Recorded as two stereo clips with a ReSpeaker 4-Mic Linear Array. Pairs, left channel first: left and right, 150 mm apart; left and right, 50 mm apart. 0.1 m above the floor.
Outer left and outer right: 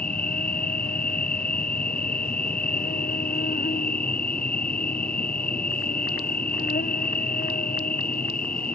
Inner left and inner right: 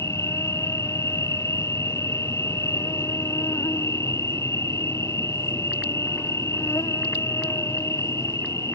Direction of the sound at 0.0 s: 85° left.